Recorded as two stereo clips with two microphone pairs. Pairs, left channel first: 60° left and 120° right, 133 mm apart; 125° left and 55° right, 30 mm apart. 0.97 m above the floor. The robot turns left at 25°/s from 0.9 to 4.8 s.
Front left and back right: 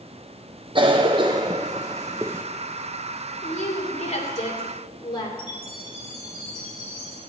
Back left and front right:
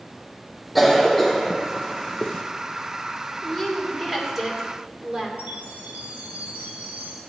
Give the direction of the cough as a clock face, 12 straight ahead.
5 o'clock.